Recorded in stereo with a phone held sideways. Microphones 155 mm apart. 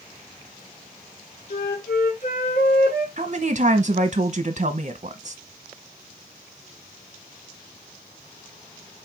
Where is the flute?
70° left (ahead or behind), 2 m.